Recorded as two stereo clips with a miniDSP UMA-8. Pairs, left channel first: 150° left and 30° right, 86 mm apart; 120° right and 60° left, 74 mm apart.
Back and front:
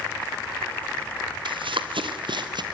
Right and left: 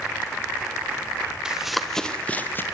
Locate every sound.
1.4 s running footsteps: 20° right, 2.5 m; by 2.6 s 60° right, 2.5 m